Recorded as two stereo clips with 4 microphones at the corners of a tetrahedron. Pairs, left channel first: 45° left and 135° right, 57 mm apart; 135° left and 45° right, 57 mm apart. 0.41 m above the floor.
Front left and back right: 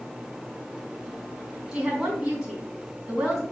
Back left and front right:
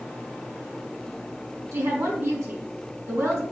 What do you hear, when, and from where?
1.7 s a woman speaking: 60° right, 4 m